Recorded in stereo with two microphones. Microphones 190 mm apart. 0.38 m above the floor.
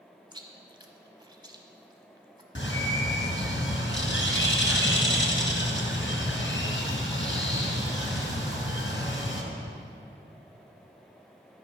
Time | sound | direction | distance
0.3 | chewing | 20° right (ahead or behind) | 1.2 m
2.5 | a bird | 75° left (ahead or behind) | 2 m